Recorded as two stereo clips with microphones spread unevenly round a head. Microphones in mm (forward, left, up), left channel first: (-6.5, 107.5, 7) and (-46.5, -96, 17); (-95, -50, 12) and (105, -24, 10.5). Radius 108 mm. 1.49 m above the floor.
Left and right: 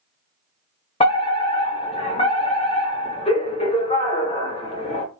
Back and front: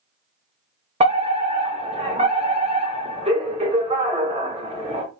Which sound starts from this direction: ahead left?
A fire alarm, at 1.0 s.